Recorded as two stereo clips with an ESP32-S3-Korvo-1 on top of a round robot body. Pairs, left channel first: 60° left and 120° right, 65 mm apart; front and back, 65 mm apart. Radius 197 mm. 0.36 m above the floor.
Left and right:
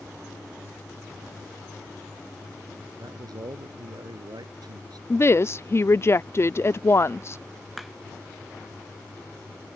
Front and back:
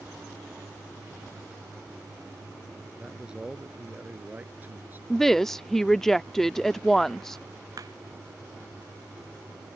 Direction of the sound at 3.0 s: 105° right.